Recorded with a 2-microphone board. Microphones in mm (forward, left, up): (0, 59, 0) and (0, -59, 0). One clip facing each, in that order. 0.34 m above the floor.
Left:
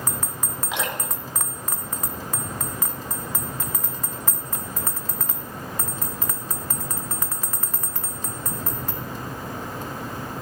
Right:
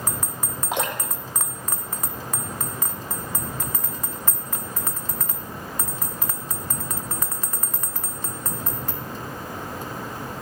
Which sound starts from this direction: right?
Dripping, at 0.7 s.